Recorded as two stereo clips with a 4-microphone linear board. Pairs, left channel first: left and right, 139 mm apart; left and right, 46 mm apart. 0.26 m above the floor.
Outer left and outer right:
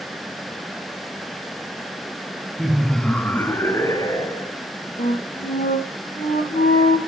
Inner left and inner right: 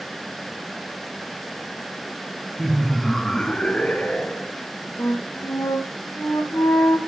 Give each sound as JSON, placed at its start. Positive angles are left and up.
{"t": 2.6, "sound": "laughter", "side_deg": -5, "distance_m": 2.5}
{"t": 5.0, "sound": "a flute", "side_deg": 80, "distance_m": 5.0}